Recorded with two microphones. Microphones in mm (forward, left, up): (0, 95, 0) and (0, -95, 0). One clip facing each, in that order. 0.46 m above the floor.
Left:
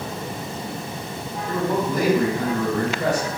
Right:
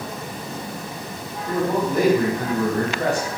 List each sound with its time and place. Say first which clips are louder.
1.5 s a man speaking: right 1 dB; 50° right (ahead or behind), 1.7 m; by 3.3 s 55° right (ahead or behind), 2 m